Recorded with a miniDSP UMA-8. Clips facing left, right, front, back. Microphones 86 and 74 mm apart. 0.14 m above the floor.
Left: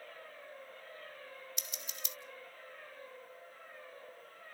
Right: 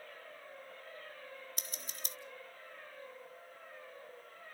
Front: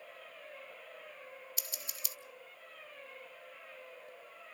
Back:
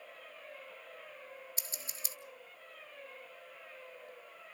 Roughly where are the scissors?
Behind right.